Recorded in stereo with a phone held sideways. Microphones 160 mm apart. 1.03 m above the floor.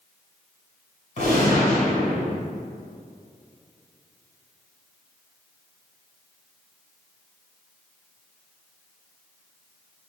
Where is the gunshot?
50° left (ahead or behind), 3 m.